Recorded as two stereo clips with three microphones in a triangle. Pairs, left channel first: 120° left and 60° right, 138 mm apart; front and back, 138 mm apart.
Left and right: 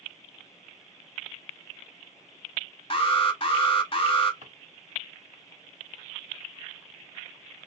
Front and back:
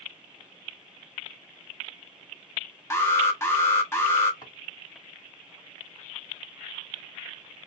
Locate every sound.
2.9 s an alarm: 70° left, 0.8 m
4.4 s a drawer: 55° right, 1.6 m